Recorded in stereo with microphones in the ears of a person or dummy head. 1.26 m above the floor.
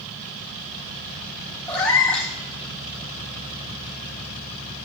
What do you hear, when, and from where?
1.7 s a cat meowing: 10° left (ahead or behind), 2.5 m